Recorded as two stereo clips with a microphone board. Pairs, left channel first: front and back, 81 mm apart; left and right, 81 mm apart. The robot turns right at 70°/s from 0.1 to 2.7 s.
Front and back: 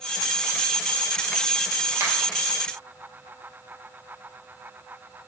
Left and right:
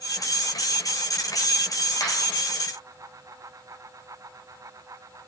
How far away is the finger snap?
About 1.8 m.